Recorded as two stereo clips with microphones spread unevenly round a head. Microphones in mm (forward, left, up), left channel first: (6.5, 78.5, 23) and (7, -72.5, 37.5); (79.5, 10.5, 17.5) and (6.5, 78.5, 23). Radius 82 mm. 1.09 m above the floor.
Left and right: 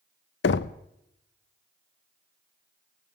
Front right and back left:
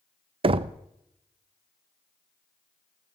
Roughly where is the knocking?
Left.